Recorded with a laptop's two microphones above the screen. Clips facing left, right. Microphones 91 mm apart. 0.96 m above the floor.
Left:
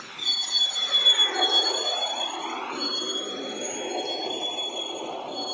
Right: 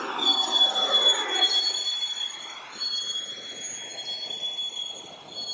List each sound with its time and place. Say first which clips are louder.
0.0 s a vehicle: right 11 dB; 55° right (ahead or behind); by 5.5 s 70° left (ahead or behind)